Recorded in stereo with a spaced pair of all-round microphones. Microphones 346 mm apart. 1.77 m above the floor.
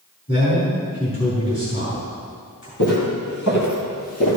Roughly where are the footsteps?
Left.